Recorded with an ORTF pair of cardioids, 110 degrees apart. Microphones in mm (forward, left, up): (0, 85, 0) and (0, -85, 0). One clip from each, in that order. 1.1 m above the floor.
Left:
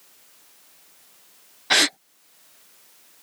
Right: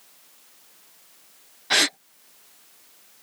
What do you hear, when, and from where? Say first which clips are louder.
1.7 s a gasp: left 2 dB; 20° left